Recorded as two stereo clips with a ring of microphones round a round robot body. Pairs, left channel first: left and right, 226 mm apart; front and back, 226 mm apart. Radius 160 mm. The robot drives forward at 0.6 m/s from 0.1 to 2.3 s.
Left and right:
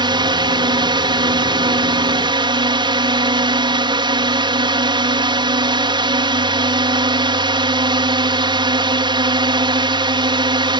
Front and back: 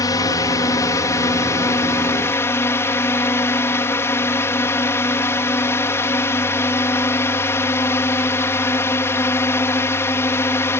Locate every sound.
0.0 s a drone: 55° right; by 10.8 s 65° right